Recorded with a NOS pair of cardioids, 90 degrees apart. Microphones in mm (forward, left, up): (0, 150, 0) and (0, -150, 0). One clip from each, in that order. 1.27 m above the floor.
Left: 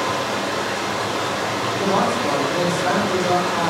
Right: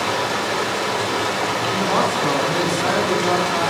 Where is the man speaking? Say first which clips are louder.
Left 1 dB; 50° right, 1.8 m.